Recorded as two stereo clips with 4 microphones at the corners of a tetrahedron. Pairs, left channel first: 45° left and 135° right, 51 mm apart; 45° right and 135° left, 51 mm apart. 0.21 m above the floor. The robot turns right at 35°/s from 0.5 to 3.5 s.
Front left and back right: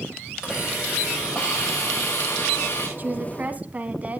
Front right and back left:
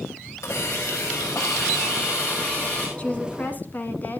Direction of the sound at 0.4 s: 60° right.